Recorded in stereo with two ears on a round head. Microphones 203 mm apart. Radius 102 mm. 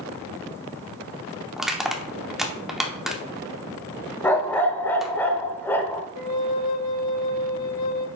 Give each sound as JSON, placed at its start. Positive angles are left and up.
{"t": 1.6, "sound": "crushing", "side_deg": 0, "distance_m": 0.7}
{"t": 4.2, "sound": "a dog barking", "side_deg": 10, "distance_m": 0.6}
{"t": 6.2, "sound": "a flute", "side_deg": 90, "distance_m": 1.0}